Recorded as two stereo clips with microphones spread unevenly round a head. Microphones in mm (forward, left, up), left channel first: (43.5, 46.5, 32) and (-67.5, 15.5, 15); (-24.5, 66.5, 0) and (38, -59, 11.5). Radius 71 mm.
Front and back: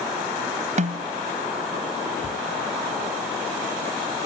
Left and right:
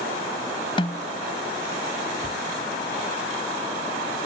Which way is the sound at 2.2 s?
175° left.